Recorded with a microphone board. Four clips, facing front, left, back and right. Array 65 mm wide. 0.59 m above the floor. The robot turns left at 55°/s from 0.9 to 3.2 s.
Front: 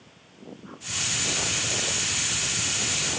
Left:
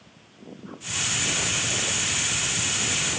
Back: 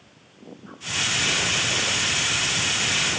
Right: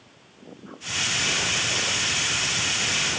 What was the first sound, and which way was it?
Only background noise.